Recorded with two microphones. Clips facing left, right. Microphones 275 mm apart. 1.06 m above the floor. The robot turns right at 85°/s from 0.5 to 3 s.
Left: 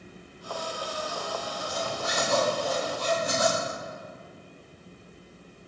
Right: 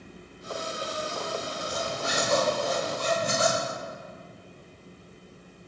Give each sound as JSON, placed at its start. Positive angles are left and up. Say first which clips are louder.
{"t": 1.6, "sound": "a zipper", "louder": "even", "azimuth_deg": 170, "distance_m": 3.5}